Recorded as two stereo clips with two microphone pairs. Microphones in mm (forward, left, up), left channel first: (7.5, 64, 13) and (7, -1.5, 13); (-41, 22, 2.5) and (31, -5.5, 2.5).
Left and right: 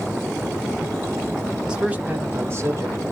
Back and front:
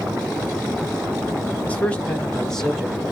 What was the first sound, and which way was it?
A man speaking, 160° right.